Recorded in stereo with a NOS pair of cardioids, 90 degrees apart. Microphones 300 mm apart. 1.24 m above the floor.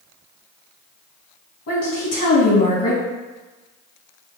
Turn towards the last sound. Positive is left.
turn(degrees=55)